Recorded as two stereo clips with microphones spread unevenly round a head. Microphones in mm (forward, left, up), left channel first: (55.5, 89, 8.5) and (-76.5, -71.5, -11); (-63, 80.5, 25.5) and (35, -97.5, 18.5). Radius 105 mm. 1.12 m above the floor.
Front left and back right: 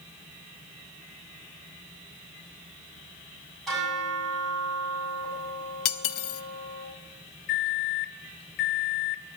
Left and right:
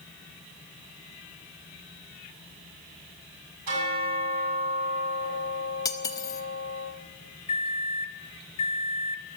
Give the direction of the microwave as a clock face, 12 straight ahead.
10 o'clock.